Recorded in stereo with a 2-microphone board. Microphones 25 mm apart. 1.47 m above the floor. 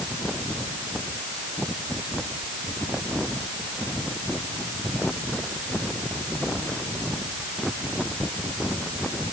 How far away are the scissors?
No scissors in this recording.